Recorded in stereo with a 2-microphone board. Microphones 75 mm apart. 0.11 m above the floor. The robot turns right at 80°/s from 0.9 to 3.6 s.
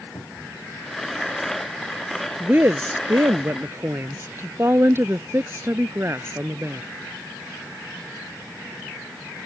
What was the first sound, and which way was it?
A cupboard door, 60° left (ahead or behind).